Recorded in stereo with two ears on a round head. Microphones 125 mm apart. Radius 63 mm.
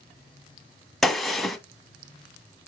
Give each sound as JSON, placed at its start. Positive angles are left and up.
{"t": 1.0, "sound": "a gunshot", "side_deg": 0, "distance_m": 0.5}